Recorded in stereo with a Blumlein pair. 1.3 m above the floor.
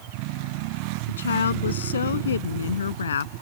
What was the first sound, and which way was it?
A woman speaking, 70° left.